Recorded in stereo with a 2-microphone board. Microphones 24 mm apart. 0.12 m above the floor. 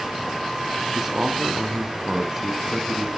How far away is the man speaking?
About 1.5 m.